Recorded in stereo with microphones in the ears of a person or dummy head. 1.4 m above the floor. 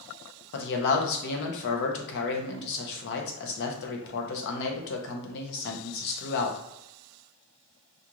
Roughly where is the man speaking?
Left.